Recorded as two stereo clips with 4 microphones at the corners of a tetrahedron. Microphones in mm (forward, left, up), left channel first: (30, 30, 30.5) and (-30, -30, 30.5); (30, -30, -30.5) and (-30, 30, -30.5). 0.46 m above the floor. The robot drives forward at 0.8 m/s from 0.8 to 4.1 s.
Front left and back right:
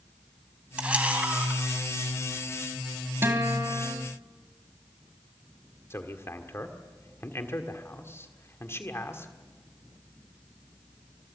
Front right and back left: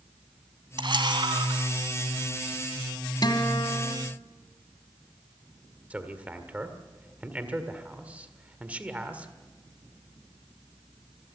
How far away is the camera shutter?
About 1.9 m.